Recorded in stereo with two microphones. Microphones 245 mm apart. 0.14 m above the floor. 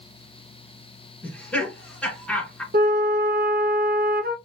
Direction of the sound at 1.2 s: 5° left (ahead or behind).